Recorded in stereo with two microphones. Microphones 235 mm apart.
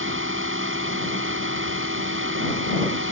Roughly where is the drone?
Right.